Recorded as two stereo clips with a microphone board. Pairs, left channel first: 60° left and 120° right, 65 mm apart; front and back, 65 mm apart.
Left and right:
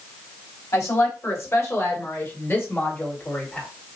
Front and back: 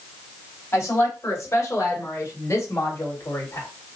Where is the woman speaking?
35° left, 2.5 m; by 3.7 s 5° right, 1.7 m.